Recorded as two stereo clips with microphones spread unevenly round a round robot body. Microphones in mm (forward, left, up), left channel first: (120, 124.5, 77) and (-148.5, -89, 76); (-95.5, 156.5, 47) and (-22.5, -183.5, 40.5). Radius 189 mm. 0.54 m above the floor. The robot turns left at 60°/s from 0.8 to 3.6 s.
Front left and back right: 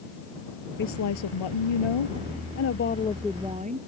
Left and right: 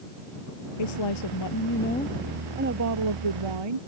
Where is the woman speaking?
100° left; by 3.8 s 70° right.